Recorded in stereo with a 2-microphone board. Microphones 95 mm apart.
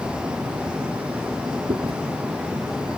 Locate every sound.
1.7 s chewing: 60° right (ahead or behind)